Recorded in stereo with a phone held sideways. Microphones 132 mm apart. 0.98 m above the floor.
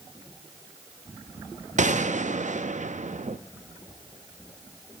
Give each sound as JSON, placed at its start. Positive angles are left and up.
{"t": 1.8, "sound": "a gunshot", "side_deg": -70, "distance_m": 0.6}